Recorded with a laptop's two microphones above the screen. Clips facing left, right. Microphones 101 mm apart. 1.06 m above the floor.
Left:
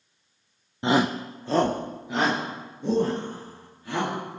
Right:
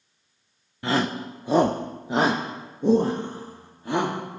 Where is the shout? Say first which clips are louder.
Left 2 dB; 25° left (ahead or behind), 0.7 m; by 4.4 s 45° right (ahead or behind), 3 m.